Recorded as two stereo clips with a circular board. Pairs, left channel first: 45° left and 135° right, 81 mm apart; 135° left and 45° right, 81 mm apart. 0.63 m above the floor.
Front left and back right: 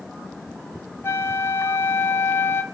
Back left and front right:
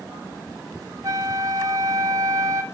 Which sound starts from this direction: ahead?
A flute, at 1.0 s.